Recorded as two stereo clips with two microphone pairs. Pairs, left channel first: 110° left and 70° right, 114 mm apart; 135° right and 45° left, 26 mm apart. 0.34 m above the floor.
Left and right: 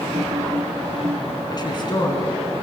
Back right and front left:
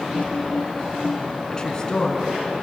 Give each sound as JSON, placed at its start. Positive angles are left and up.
{"t": 0.1, "sound": "typing on a keyboard", "azimuth_deg": -125, "distance_m": 2.5}
{"t": 1.5, "sound": "a woman speaking", "azimuth_deg": 160, "distance_m": 4.5}